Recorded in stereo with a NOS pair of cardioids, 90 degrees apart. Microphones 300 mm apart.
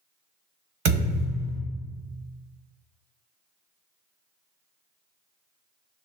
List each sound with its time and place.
0.8 s a thud: 55° right, 1.3 m